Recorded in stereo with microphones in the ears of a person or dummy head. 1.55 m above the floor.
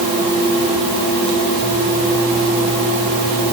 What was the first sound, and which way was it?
Only background noise.